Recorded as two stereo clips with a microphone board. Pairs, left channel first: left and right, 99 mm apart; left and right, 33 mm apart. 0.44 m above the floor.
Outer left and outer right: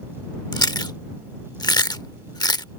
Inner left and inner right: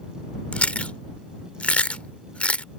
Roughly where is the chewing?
Left.